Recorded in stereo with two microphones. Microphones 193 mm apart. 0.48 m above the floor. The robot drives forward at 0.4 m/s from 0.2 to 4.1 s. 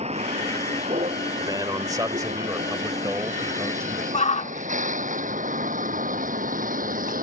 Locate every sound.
0.0 s a vehicle: 35° right (ahead or behind); by 7.2 s 45° right (ahead or behind)
1.4 s a man speaking: 20° right (ahead or behind); by 4.0 s 15° right (ahead or behind)
4.1 s a shout: 35° left (ahead or behind)